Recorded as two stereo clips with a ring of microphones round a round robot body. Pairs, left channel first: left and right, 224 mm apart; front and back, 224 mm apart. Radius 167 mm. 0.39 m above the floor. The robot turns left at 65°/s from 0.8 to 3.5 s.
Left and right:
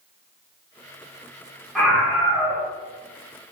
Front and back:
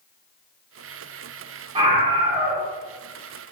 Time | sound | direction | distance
1.8 | a scream | 175° left | 0.8 m